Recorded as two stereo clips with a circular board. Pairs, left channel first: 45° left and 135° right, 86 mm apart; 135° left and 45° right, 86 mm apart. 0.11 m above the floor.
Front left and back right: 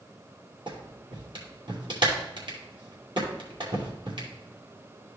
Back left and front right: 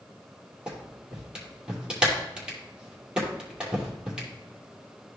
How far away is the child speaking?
No child speaking in this recording.